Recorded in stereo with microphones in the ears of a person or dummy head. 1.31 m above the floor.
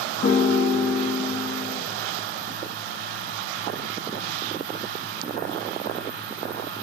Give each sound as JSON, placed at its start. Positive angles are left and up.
{"t": 0.2, "sound": "a piano", "side_deg": 40, "distance_m": 0.8}